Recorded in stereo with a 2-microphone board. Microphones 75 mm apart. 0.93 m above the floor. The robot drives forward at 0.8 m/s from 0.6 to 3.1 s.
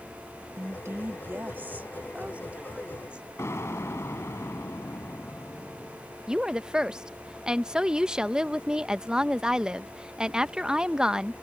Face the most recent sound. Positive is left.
turn(degrees=-10)  # may be behind; listen again after turning